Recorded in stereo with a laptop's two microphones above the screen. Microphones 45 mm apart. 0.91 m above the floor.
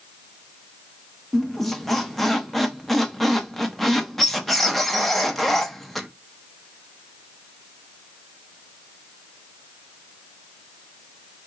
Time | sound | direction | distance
1.3 | a squeak | 5° left (ahead or behind) | 0.7 m